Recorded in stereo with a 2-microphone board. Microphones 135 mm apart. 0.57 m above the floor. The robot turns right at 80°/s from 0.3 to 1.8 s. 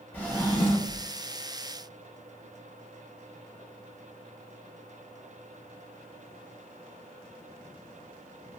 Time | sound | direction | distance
0.1 | a drawer | 10° left | 0.7 m